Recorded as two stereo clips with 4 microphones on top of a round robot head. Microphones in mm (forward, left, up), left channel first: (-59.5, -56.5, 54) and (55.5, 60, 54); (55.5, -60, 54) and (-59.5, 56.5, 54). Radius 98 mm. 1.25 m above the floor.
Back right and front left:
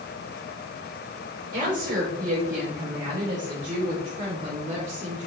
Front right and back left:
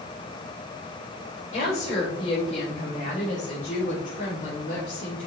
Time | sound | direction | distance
1.5 | a woman speaking | 5° left | 5.5 m